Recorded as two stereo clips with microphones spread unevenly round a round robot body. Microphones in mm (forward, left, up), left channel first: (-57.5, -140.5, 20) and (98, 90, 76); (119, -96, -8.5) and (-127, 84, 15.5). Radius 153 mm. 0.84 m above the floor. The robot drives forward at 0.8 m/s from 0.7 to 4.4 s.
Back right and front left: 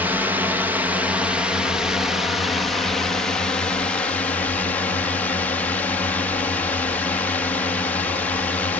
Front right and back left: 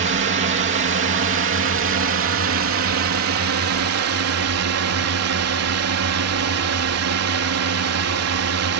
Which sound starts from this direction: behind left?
A drone, at 0.0 s.